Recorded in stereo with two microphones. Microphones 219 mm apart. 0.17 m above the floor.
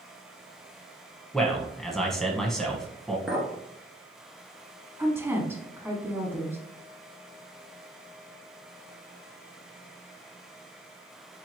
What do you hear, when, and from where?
1.3 s a man speaking: centre (ahead or behind), 1.2 m
3.3 s a clink: 5° right (ahead or behind), 1.5 m
5.0 s a woman speaking: 10° right (ahead or behind), 1.2 m